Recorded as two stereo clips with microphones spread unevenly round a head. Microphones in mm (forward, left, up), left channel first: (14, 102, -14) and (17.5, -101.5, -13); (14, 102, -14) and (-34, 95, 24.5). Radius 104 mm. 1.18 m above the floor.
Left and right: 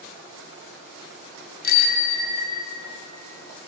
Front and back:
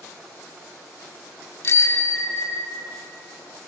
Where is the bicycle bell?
45° left, 2.5 m; by 3.0 s 30° left, 3.5 m.